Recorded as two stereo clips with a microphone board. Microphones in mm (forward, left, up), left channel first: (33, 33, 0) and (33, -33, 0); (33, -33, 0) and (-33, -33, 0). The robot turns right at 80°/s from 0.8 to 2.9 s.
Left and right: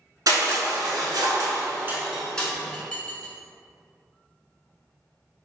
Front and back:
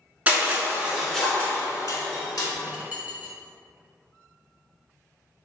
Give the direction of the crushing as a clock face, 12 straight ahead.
4 o'clock.